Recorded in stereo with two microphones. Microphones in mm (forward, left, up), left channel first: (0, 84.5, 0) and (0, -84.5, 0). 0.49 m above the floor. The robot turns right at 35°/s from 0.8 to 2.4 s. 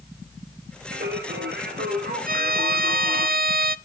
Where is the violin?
55° right (ahead or behind), 0.5 m; by 3.8 s 60° right (ahead or behind), 0.5 m.